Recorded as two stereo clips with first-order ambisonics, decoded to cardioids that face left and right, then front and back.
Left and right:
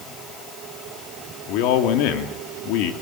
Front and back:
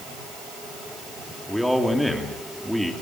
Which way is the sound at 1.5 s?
90° left.